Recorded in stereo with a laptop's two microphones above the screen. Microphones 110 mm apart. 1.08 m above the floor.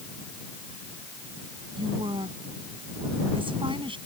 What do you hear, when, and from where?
1.8 s a woman speaking: 50° right (ahead or behind)